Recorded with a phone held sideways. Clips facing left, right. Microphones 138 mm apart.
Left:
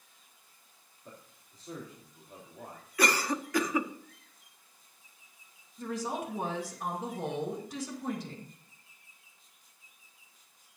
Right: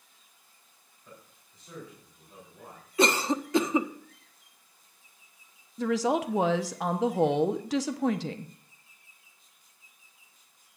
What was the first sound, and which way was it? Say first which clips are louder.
A man speaking: left 1 dB; 40° left (ahead or behind).